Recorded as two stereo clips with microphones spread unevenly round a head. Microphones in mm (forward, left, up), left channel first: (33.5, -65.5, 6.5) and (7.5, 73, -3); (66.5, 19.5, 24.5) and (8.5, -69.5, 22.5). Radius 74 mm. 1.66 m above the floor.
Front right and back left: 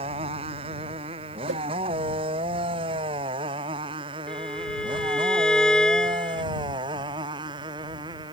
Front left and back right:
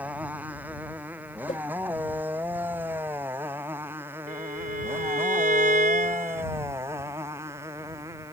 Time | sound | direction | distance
0.0 | a motorcycle | 155° left | ?
1.5 | a whoosh | 115° left | ?
4.3 | a violin | 165° right | ?